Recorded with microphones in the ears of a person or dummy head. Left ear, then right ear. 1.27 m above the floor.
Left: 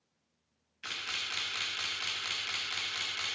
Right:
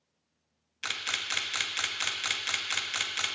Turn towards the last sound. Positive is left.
turn(degrees=-70)  # may be behind; listen again after turning